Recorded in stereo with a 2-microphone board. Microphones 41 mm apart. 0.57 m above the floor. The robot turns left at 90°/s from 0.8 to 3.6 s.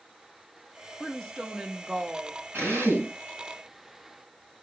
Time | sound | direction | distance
1.0 | a woman speaking | 15° left (ahead or behind) | 0.8 m
2.5 | a drill | 65° right | 4.5 m